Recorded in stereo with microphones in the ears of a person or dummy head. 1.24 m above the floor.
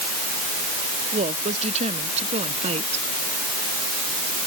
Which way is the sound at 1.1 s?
35° right (ahead or behind).